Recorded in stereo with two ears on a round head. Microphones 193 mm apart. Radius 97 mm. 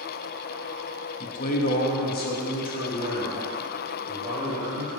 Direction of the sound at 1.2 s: 35° left (ahead or behind).